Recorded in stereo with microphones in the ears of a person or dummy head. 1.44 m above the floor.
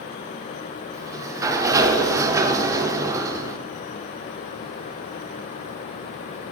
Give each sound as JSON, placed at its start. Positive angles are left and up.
{"t": 0.9, "sound": "a sliding door", "side_deg": -15, "distance_m": 0.6}